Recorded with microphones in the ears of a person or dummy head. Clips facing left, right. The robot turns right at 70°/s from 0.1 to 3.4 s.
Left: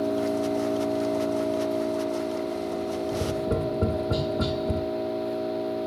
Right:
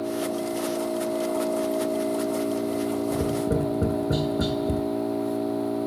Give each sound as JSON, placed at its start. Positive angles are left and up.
{"t": 0.0, "sound": "an engine running", "azimuth_deg": 70, "distance_m": 5.5}
{"t": 3.1, "sound": "tapping", "side_deg": -30, "distance_m": 1.2}